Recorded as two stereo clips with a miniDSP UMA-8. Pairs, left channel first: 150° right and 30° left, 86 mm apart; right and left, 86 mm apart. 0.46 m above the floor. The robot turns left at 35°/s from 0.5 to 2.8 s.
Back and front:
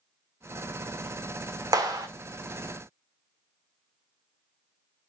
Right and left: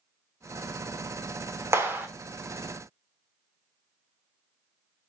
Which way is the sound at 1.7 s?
45° left.